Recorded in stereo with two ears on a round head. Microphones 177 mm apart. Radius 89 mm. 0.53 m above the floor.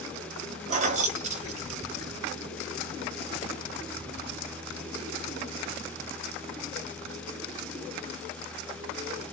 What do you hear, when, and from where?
0.7 s keys jangling: 35° right (ahead or behind), 0.5 m